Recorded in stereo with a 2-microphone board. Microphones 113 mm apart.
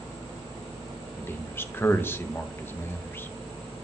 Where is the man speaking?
20° left (ahead or behind), 0.8 m.